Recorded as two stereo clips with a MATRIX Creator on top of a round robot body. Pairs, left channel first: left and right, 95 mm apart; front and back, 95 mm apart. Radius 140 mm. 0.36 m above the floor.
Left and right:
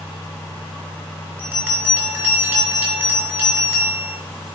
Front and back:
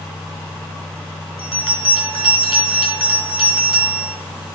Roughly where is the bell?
Ahead.